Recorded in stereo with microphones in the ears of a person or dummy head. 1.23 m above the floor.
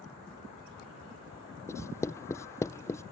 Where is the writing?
10° left (ahead or behind).